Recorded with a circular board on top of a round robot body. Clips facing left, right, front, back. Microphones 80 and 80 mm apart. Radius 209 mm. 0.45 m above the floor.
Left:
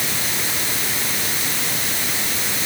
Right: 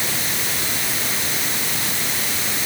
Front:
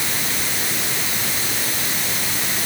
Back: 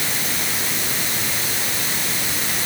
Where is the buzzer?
I don't hear a buzzer.